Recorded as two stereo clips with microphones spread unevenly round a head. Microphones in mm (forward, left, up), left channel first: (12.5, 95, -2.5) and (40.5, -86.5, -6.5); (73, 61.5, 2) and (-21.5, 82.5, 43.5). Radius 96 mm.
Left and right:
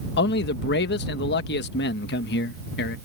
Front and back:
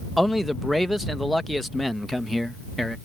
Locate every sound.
0.2 s a man speaking: 70° left